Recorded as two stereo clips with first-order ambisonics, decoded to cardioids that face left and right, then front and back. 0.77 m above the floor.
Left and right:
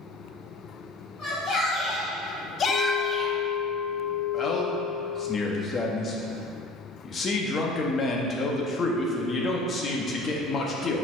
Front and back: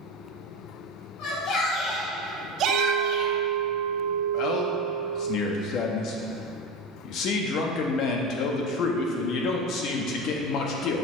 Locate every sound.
1.2 s a shout: 30° left, 1.7 m; by 3.4 s straight behind, 1.4 m
2.7 s a clink: 25° left, 1.9 m
4.3 s a man speaking: 30° left, 0.8 m